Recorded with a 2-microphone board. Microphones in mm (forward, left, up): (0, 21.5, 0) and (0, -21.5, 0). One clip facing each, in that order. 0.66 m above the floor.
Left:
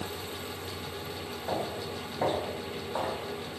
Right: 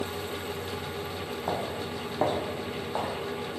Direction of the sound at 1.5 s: 70° right (ahead or behind).